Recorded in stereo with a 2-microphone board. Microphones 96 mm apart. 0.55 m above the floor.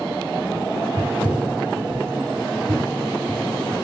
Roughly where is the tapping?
Right.